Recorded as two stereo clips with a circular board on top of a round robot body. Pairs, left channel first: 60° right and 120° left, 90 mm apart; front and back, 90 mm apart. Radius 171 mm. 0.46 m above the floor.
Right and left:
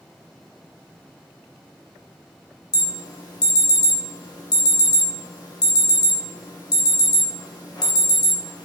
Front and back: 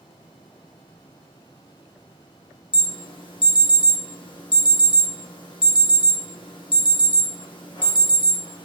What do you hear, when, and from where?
2.7 s an alarm: 20° right, 2.5 m